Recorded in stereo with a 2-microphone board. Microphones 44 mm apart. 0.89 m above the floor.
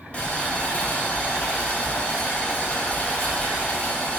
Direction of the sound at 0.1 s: 25° left (ahead or behind).